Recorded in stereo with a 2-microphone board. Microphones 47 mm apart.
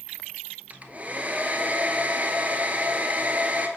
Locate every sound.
0.7 s a hair dryer: 35° right (ahead or behind), 0.6 m